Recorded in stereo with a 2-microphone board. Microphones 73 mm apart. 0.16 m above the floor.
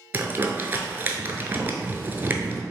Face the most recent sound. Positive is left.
turn(degrees=-25)  # may be behind; listen again after turning